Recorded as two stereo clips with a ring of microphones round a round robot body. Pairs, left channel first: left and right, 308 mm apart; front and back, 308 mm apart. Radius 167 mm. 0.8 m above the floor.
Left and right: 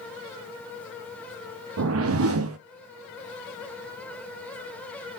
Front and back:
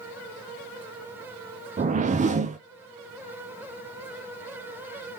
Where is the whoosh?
120° right, 0.7 m.